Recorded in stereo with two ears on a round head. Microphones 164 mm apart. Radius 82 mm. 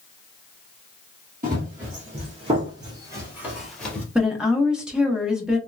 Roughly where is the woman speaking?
Centre.